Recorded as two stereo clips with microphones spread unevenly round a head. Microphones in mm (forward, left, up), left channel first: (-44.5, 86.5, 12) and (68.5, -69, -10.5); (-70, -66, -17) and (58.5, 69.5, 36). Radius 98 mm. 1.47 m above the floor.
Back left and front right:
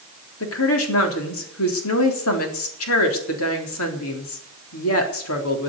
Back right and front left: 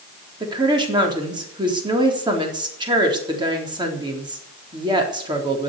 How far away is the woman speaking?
About 4 m.